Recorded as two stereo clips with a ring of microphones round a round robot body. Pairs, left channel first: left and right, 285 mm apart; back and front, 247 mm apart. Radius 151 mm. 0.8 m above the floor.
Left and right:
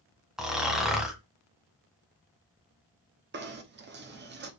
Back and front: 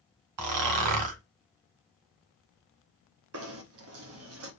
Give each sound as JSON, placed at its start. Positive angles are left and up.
{"t": 0.4, "sound": "snoring", "azimuth_deg": 0, "distance_m": 1.4}
{"t": 3.3, "sound": "knocking", "azimuth_deg": -35, "distance_m": 1.6}